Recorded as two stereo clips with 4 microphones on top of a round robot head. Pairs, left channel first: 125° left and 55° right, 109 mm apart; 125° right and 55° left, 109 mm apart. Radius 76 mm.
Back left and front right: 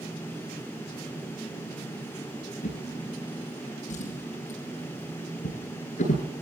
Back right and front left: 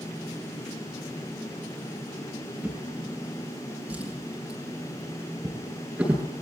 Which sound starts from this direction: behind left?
A drawer, at 2.6 s.